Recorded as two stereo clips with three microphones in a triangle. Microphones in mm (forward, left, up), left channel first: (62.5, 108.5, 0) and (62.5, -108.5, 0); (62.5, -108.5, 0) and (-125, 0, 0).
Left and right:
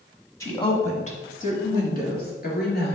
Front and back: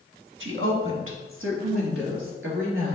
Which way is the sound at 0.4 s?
165° left.